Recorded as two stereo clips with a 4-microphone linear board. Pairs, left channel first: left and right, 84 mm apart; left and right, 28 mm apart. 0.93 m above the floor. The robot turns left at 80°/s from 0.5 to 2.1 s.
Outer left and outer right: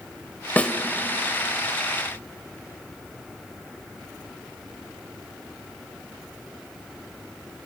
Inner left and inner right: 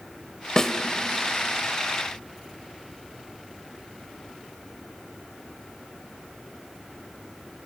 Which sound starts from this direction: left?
A snare drum, at 0.6 s.